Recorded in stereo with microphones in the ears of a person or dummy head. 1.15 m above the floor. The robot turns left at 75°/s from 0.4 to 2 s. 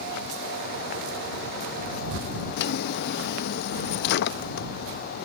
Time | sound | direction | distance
2.6 | a drawer | 60° left (ahead or behind) | ?